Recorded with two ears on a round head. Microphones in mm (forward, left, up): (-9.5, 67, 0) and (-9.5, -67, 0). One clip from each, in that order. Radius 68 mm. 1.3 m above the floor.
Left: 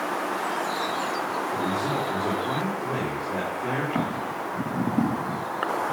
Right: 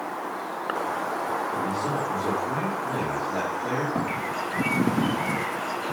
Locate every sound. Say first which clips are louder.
1.5 s a man speaking: left 1 dB; 25° left (ahead or behind), 3.5 m
4.0 s footsteps: right 1 dB; 60° left (ahead or behind), 6 m; by 5.2 s 55° left (ahead or behind), 5.5 m